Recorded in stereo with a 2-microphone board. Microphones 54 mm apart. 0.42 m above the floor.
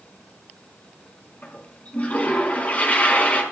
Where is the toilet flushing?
30° left (ahead or behind), 4.5 m.